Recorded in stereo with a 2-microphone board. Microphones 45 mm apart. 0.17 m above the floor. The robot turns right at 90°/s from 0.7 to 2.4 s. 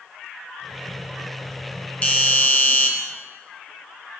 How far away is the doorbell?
About 2.5 m.